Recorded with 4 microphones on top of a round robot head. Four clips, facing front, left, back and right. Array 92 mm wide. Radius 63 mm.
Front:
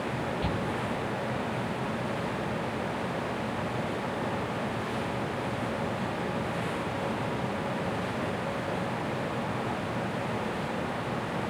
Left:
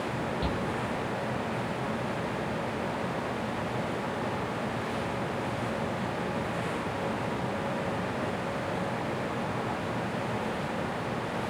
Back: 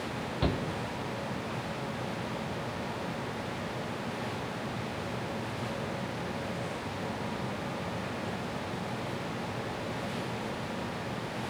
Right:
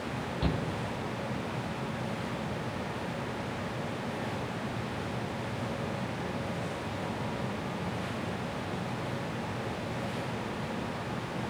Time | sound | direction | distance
0.4 | a shout | 175° left | 2.5 m